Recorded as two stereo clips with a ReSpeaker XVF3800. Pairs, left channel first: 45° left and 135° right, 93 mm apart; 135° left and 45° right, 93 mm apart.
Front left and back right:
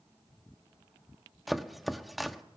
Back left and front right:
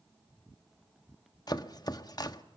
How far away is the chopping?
About 1.1 m.